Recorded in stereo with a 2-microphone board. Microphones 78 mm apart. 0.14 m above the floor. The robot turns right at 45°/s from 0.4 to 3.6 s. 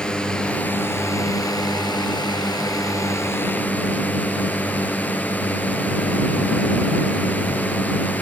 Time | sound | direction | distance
0.0 | a drone | 15° left | ?